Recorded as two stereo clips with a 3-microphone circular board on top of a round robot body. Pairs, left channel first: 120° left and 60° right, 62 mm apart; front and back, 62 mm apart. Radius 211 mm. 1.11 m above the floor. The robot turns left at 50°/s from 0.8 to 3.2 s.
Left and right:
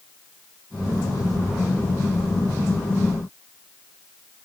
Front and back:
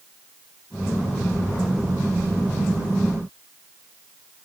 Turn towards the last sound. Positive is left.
No sound to turn to.